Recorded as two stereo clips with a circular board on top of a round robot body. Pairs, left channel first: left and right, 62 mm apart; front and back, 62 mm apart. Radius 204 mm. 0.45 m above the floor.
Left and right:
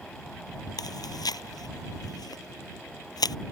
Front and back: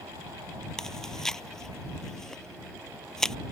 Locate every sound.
0.8 s chewing: 80° left